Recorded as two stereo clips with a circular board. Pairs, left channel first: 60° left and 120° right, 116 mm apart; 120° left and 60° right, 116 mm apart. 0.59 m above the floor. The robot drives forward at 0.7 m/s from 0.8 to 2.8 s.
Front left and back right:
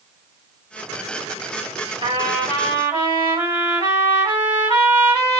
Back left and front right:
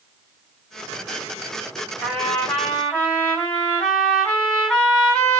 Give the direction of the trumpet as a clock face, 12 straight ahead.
5 o'clock.